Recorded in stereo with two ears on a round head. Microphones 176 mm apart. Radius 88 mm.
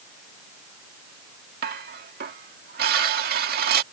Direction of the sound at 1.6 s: 50° right (ahead or behind).